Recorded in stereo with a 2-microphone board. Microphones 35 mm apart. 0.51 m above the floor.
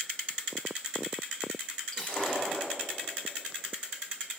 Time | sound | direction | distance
1.9 | breaking glass | 25° left (ahead or behind) | 6.5 m